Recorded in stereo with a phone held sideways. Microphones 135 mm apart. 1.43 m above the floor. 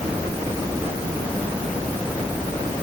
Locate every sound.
Only background noise.